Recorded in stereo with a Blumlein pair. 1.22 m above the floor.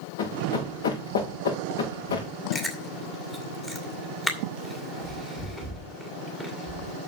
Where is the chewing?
10° left, 2.5 m.